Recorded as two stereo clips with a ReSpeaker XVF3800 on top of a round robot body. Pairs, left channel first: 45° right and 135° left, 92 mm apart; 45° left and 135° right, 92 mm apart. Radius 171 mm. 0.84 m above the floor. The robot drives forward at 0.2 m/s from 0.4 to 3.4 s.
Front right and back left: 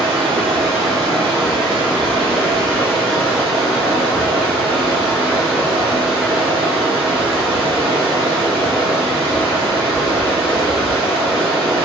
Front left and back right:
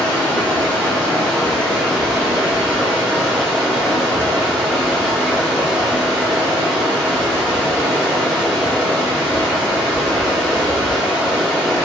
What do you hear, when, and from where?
0.0 s running water: 115° left, 1.1 m; by 11.9 s 135° left, 1.4 m